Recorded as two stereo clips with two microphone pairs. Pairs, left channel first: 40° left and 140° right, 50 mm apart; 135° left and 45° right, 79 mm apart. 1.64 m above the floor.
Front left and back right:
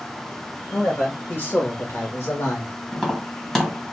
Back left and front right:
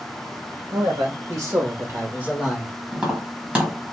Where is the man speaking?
15° right, 1.9 m; by 2.8 s 40° left, 1.5 m.